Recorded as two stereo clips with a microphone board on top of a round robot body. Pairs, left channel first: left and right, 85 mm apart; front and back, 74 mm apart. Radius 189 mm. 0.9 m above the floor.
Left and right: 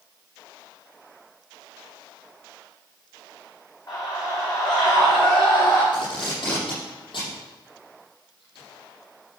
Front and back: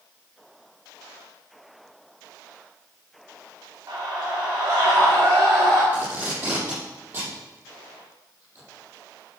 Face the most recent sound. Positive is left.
turn(degrees=115)